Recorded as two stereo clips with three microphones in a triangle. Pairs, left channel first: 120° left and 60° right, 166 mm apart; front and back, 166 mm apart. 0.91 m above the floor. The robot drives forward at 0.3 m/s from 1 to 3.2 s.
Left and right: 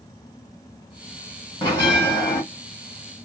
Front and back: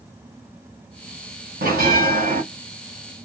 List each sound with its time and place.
1.6 s a bell: 175° right, 1.6 m